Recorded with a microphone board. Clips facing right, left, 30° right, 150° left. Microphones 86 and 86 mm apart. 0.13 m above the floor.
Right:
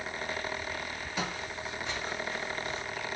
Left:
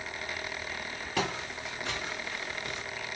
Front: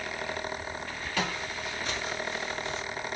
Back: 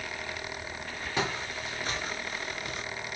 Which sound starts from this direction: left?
Footsteps, at 1.2 s.